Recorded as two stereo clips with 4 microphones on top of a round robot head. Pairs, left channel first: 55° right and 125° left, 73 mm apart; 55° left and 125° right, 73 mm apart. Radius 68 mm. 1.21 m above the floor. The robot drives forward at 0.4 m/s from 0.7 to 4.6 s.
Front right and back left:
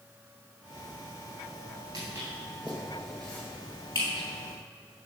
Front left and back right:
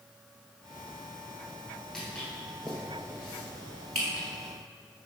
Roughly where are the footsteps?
Behind left.